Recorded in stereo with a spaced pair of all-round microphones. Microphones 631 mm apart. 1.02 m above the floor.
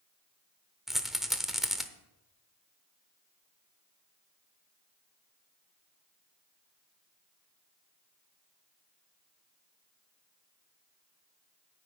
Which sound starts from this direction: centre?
A rattle, at 0.9 s.